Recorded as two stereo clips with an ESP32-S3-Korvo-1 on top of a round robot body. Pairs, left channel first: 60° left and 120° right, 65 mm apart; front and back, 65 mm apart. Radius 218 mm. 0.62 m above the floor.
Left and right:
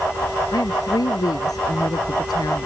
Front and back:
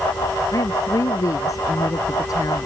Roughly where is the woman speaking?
Ahead left.